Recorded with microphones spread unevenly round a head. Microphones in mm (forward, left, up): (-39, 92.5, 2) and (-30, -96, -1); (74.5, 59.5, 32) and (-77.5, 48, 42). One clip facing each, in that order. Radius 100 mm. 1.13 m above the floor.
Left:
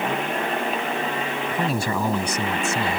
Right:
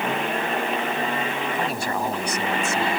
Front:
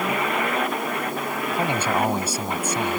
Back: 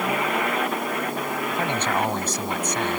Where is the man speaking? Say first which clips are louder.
Left 2 dB, front 3 dB; 85° left.